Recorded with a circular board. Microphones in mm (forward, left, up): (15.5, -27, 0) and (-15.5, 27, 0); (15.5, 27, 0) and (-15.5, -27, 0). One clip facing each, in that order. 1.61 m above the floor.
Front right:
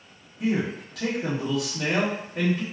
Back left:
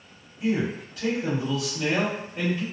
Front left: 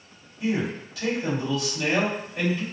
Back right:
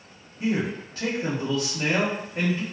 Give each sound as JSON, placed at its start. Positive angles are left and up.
{"t": 0.4, "sound": "a man speaking", "azimuth_deg": -70, "distance_m": 1.4}